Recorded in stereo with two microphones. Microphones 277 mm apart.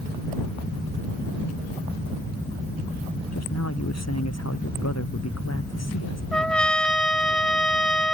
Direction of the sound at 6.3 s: 5° left (ahead or behind).